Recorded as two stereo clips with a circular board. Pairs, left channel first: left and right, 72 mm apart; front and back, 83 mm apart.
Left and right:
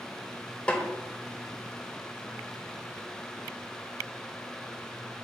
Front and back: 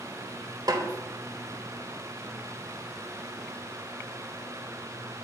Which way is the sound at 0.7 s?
160° left.